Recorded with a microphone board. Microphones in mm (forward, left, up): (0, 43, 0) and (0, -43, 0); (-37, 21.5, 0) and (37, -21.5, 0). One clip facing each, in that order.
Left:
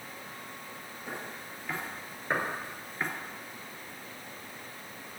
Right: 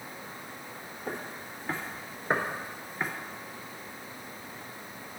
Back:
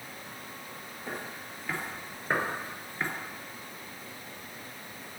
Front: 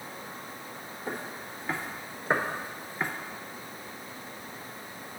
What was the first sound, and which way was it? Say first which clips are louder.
Footsteps: right 3 dB, front 2 dB; 85° right.